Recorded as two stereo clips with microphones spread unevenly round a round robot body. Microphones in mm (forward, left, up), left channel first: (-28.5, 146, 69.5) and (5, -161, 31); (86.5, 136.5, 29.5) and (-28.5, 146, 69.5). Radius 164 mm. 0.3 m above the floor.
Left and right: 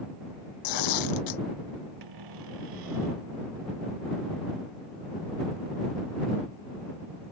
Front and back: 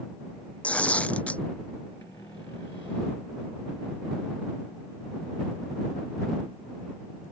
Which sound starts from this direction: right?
A cupboard door, at 2.0 s.